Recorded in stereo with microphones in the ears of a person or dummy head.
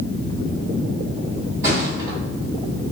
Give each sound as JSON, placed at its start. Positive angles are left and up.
{"t": 1.6, "sound": "a thud", "side_deg": -15, "distance_m": 1.9}